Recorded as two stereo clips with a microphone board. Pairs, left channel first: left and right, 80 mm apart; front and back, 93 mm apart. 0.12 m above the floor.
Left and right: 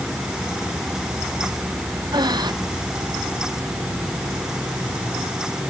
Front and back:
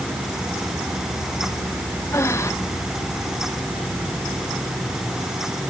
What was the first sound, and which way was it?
Breathing, 60° right.